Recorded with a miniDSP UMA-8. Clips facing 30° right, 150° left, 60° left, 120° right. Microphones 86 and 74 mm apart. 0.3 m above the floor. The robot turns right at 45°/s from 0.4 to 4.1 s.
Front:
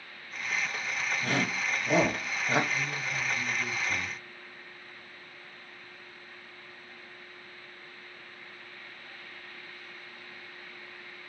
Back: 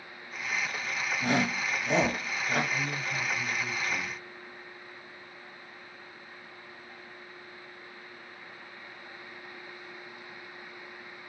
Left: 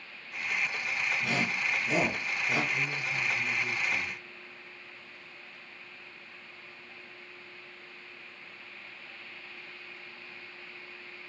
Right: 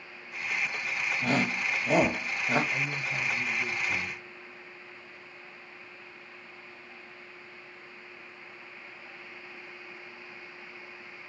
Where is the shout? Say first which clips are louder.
Back 4 dB, right 3 dB; 150° right, 1.6 m; by 2.6 s 85° right, 1.6 m.